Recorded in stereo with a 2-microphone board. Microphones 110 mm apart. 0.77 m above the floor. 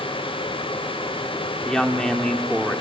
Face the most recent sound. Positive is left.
turn(degrees=5)  # may be behind; listen again after turning